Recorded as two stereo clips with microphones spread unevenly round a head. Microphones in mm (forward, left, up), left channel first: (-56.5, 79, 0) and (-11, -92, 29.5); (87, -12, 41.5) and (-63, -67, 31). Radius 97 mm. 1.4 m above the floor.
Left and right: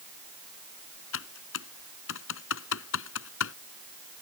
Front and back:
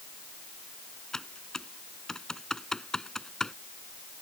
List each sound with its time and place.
1.1 s typing on a keyboard: 105° left